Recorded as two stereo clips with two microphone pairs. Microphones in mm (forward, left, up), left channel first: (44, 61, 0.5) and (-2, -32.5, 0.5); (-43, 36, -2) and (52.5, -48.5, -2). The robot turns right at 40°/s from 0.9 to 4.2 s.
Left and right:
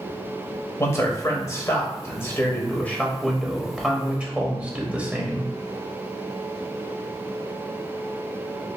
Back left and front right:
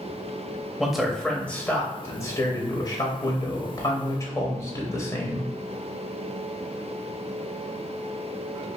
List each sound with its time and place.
0.8 s a man speaking: 45° left, 1.0 m; by 5.5 s straight behind, 1.0 m